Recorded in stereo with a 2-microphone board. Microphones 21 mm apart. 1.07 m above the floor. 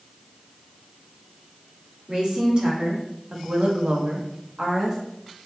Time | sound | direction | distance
2.1 | a woman speaking | 35° right (ahead or behind) | 3 m